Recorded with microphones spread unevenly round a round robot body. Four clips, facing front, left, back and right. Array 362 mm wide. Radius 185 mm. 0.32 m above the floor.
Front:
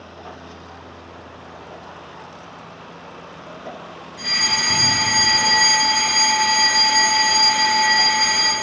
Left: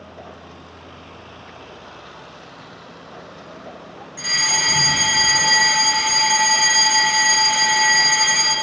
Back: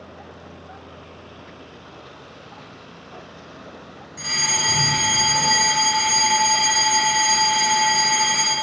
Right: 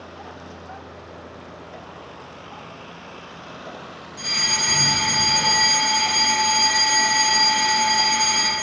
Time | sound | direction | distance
4.2 | a fire alarm | 165° right | 3.5 m